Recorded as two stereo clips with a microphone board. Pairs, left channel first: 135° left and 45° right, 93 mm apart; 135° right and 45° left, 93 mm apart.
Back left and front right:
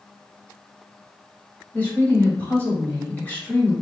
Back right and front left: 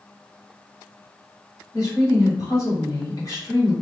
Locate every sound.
1.7 s a woman speaking: 160° right, 1.6 m